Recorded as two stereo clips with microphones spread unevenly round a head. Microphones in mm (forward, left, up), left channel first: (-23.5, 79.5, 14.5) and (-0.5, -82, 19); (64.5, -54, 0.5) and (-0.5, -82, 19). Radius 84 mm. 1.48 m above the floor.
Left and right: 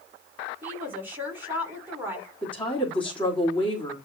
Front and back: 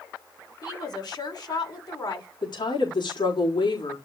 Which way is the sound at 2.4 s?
15° left.